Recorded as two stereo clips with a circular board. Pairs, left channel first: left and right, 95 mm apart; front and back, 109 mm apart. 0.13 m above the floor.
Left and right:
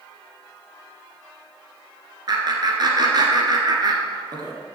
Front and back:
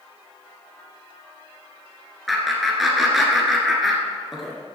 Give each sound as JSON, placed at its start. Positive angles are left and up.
{"t": 2.3, "sound": "laughter", "azimuth_deg": -95, "distance_m": 1.9}